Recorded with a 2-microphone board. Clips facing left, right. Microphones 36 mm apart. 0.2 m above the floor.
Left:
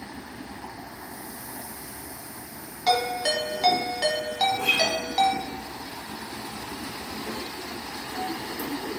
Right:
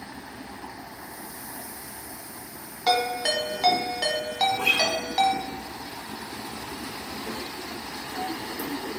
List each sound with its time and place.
2.9 s a ringtone: 10° right (ahead or behind), 1.0 m
4.5 s a guitar: 65° right (ahead or behind), 0.7 m